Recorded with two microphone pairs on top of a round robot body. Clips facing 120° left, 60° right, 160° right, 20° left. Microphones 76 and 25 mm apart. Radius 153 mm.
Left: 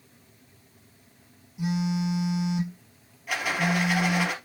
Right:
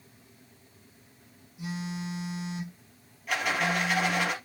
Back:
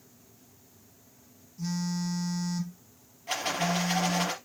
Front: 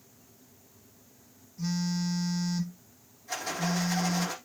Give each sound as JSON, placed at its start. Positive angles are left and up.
{"t": 1.6, "sound": "a phone buzzing", "azimuth_deg": 95, "distance_m": 2.5}
{"t": 3.3, "sound": "a rattle", "azimuth_deg": -150, "distance_m": 4.5}